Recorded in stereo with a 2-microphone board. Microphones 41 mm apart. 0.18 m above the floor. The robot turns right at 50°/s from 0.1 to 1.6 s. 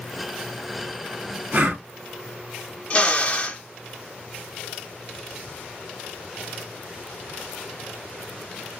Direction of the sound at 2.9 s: 35° left (ahead or behind).